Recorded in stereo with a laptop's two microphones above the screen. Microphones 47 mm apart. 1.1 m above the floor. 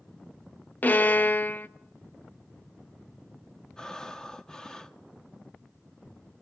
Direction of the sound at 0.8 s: 35° left (ahead or behind).